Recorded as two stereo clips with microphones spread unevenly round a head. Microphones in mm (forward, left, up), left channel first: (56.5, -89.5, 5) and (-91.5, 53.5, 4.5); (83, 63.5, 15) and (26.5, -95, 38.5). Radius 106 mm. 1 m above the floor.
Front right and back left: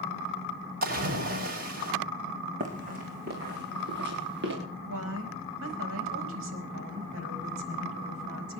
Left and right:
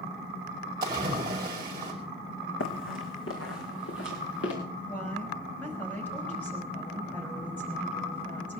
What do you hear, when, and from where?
0.8 s a splash: 175° left, 5.5 m
2.6 s running footsteps: 80° left, 3 m; by 4.5 s 95° left, 5.5 m
4.9 s a woman speaking: 150° left, 5 m